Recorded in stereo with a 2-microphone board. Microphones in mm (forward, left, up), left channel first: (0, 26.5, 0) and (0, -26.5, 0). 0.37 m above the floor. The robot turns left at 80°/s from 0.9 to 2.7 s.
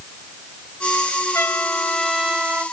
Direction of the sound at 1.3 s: 70° left.